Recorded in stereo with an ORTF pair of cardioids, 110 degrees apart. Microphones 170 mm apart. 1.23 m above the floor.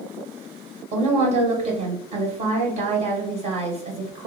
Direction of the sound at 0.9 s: 40° right.